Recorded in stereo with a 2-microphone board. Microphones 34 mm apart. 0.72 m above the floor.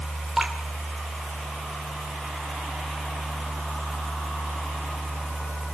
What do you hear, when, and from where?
0.4 s dripping: 5° right (ahead or behind), 2.5 m